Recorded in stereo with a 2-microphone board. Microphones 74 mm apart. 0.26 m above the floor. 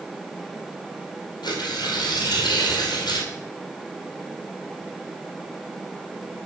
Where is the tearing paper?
75° left (ahead or behind), 2.5 m.